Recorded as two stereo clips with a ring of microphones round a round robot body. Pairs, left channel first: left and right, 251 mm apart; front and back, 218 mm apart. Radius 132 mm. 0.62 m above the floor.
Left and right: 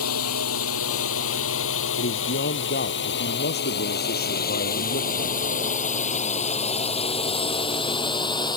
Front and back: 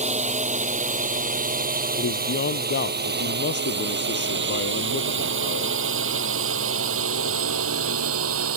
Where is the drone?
120° left; by 8.6 s 165° left.